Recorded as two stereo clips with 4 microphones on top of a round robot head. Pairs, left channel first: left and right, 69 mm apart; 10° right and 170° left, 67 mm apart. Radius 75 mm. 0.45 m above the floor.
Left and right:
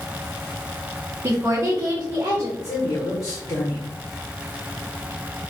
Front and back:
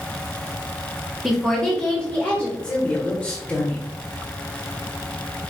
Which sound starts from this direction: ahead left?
A man speaking, at 2.6 s.